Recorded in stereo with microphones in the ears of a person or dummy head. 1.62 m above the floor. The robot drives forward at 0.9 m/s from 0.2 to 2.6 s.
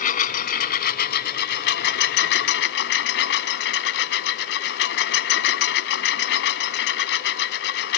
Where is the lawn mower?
50° left (ahead or behind); by 8.0 s 65° left (ahead or behind).